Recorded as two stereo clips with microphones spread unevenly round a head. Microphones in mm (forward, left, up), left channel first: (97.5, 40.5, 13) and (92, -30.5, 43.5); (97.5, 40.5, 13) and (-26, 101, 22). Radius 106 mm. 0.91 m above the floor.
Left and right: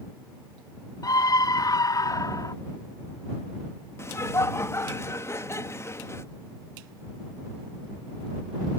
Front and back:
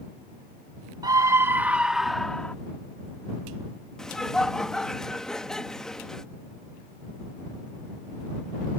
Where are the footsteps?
No footsteps in this recording.